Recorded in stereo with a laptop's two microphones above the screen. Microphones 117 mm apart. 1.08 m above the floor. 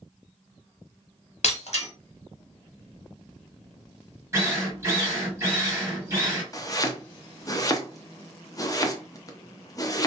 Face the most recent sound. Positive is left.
turn(degrees=30)  # may be behind; listen again after turning